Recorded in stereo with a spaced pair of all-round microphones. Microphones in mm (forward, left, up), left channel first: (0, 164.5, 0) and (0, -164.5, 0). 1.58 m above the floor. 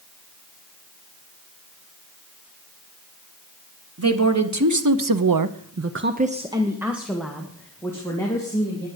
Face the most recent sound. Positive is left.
turn(degrees=10)  # may be behind; listen again after turning